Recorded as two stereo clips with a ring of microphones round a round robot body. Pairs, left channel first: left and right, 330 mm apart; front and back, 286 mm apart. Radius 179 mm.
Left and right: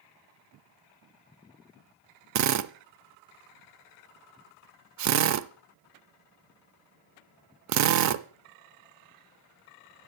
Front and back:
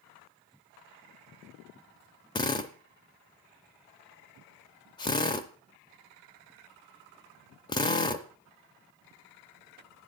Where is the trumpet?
No trumpet in this recording.